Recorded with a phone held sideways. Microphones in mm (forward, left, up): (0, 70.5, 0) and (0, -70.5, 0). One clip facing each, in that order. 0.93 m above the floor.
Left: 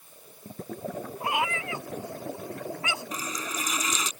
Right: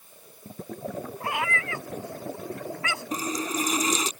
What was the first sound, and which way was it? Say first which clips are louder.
A cat meowing: left 1 dB; 20° left (ahead or behind).